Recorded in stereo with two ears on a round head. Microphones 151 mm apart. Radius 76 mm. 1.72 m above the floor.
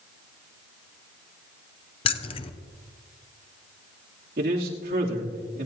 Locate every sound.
2.0 s keys jangling: 35° left (ahead or behind), 0.7 m
4.4 s a man speaking: 60° right (ahead or behind), 3 m